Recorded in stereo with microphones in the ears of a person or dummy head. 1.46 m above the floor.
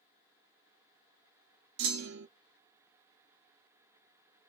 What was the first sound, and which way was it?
A clunk, 60° right (ahead or behind).